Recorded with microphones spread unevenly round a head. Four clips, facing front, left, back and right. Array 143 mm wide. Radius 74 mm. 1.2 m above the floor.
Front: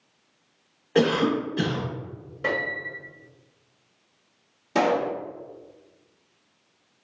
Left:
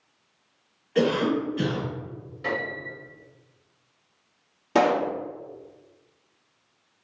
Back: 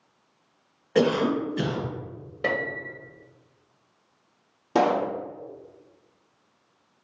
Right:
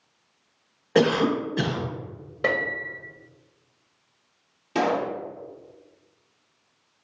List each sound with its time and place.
0.9 s a cough: 80° right, 1.1 m
2.4 s a piano: 120° right, 1.1 m
4.8 s a pop: 135° left, 0.9 m